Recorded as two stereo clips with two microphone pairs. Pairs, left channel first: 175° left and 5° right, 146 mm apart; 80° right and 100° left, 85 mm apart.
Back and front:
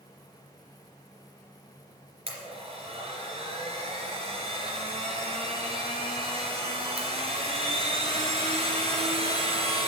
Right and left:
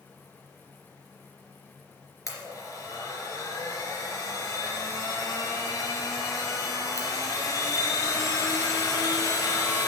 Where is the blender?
40° right, 3 m.